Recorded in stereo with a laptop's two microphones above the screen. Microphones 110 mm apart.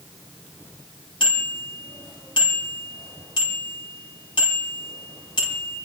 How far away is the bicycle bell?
About 6.5 m.